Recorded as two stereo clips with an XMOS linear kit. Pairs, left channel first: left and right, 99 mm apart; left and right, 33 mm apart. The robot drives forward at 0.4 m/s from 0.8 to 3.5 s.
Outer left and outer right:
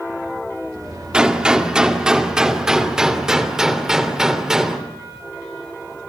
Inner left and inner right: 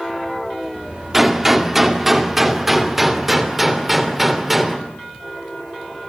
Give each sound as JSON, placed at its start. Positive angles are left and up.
{"t": 1.1, "sound": "a gunshot", "side_deg": -10, "distance_m": 1.9}